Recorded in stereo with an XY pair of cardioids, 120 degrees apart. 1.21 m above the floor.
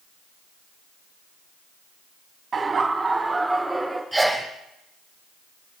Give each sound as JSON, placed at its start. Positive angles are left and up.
{"t": 2.5, "sound": "laughter", "azimuth_deg": -30, "distance_m": 2.0}
{"t": 4.1, "sound": "a sneeze", "azimuth_deg": -5, "distance_m": 7.0}